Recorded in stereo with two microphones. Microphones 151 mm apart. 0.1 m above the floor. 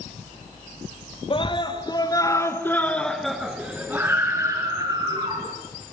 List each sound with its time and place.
1.3 s a scream: 35° left (ahead or behind), 2 m; by 5.5 s 25° right (ahead or behind), 3 m